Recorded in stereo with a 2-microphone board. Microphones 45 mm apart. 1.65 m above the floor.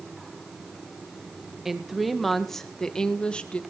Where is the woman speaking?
5° right (ahead or behind), 1.9 m; by 3.6 s 25° left (ahead or behind), 1.9 m.